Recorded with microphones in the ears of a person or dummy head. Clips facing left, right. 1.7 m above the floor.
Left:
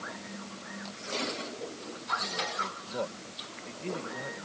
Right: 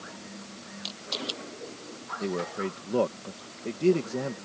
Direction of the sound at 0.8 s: 55° right (ahead or behind).